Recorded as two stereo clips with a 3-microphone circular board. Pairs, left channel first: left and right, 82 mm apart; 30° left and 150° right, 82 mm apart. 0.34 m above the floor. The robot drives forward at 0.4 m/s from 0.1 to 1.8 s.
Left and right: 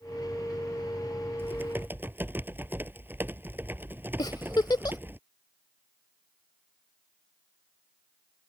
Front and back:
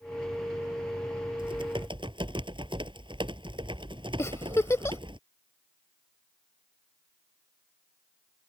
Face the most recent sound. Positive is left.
turn(degrees=80)